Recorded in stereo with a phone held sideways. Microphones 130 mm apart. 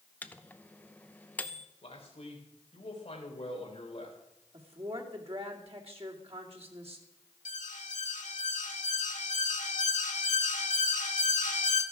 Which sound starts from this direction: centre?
A microwave, at 0.2 s.